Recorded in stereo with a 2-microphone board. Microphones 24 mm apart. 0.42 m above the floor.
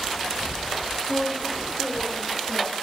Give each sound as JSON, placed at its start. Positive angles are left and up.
{"t": 1.1, "sound": "a woman speaking", "side_deg": -55, "distance_m": 7.0}